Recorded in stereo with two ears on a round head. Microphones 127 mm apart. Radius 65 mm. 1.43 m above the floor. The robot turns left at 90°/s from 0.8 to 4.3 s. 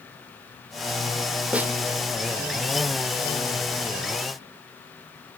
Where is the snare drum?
10° right (ahead or behind), 1.4 m; by 1.7 s 20° right (ahead or behind), 1.4 m.